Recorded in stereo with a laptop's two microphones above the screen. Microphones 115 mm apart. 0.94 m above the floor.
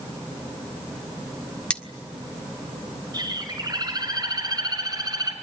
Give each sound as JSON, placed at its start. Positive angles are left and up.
{"t": 1.7, "sound": "cutlery clinking", "side_deg": 10, "distance_m": 1.6}
{"t": 3.1, "sound": "a bird", "side_deg": -35, "distance_m": 4.5}